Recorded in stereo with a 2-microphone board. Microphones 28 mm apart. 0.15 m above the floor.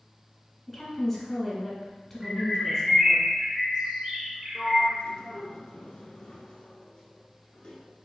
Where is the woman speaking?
15° left (ahead or behind), 1.6 m.